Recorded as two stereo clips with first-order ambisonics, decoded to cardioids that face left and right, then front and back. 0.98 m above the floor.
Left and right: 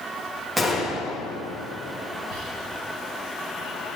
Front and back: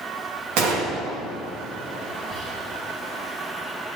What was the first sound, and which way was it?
A gunshot, 165° right.